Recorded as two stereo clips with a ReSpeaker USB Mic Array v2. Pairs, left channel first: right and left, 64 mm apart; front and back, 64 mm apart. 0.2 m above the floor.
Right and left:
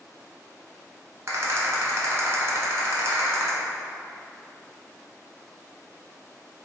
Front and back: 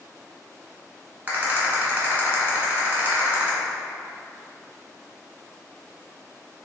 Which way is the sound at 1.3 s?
125° left.